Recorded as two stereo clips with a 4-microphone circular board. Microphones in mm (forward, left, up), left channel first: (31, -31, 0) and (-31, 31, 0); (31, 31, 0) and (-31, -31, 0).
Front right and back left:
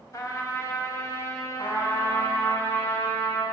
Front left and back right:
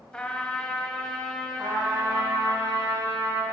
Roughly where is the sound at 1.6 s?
Right.